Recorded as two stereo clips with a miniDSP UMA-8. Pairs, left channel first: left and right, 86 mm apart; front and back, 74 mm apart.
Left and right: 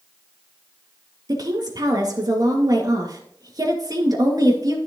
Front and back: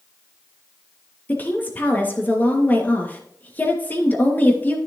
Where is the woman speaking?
60° right, 2.5 m.